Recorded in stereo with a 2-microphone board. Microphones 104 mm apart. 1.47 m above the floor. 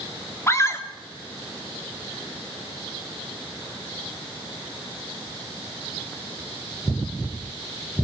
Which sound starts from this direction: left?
A scream, at 0.5 s.